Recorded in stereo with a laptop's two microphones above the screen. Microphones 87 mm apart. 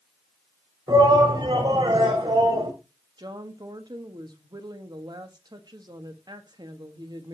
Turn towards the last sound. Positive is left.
turn(degrees=-55)  # may be behind; listen again after turning